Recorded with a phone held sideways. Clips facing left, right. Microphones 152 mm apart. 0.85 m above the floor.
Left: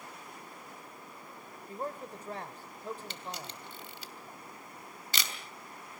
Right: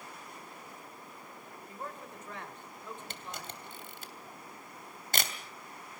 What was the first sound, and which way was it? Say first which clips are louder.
A man speaking: left 6 dB; 35° left (ahead or behind).